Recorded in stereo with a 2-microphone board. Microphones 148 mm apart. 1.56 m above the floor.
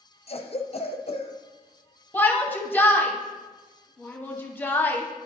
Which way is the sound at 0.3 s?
45° left (ahead or behind).